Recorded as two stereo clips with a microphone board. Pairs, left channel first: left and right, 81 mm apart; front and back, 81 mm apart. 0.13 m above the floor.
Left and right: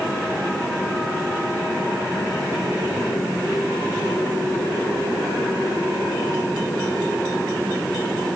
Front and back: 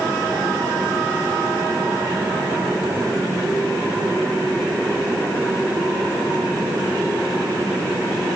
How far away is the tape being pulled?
No tape being pulled in this recording.